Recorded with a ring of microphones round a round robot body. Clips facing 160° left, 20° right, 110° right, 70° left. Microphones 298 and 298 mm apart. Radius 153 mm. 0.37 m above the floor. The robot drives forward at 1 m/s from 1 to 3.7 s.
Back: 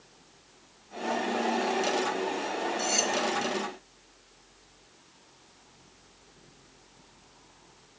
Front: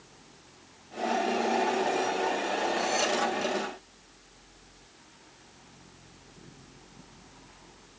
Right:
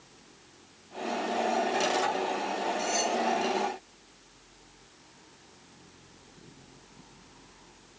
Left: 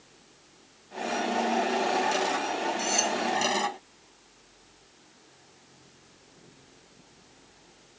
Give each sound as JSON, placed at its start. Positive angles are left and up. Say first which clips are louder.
{"t": 2.8, "sound": "cutlery clinking", "louder": "front 2 dB, even", "azimuth_deg": 125, "distance_m": 1.3}